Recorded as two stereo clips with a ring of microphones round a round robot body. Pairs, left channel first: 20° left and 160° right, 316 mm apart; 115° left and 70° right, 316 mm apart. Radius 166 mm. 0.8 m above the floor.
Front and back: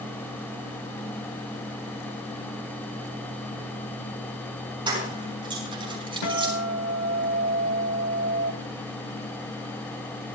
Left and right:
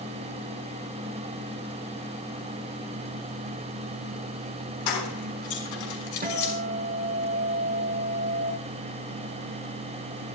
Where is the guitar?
5° right, 5.5 m.